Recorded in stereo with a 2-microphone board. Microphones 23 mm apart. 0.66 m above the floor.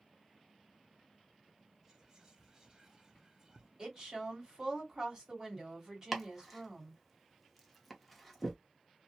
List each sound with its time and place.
1.8 s whispering: 25° right (ahead or behind), 0.6 m
3.8 s a woman speaking: 25° right (ahead or behind), 1.9 m
6.1 s chopping: 5° left (ahead or behind), 0.7 m